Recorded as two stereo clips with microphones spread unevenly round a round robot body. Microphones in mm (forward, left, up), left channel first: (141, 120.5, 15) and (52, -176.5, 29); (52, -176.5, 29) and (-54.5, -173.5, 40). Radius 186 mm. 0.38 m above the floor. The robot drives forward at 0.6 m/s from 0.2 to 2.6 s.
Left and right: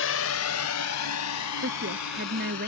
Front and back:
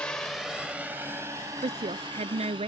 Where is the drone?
75° left; by 2.7 s 115° left.